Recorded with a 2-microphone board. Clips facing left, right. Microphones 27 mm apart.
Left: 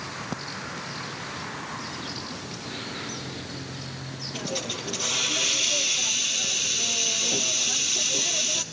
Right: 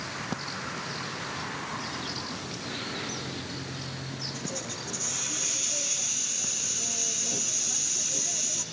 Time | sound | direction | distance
4.3 | a hiss | 60° left (ahead or behind) | 2.5 m